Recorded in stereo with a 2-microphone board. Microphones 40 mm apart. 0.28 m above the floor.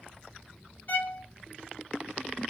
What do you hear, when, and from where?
0.9 s a violin: 50° left (ahead or behind), 1.2 m